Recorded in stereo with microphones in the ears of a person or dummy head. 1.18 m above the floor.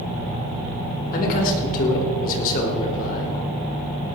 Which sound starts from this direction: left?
A man speaking, at 1.1 s.